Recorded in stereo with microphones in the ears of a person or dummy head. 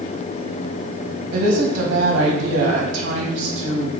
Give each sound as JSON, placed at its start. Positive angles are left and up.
{"t": 1.3, "sound": "a woman speaking", "side_deg": -70, "distance_m": 1.2}